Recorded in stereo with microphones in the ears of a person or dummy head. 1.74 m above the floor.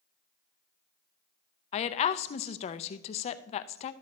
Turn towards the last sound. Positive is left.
turn(degrees=35)  # may be behind; listen again after turning